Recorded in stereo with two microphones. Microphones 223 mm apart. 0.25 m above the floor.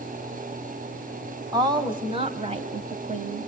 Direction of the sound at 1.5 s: 15° right (ahead or behind).